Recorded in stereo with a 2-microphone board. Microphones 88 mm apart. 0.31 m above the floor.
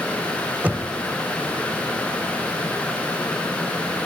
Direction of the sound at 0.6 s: 20° right (ahead or behind).